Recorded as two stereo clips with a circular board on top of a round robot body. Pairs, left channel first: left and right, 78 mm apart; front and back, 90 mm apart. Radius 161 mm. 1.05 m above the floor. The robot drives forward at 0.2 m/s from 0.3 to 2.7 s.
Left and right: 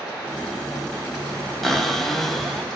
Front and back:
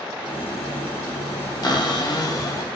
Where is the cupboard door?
5° left, 0.8 m.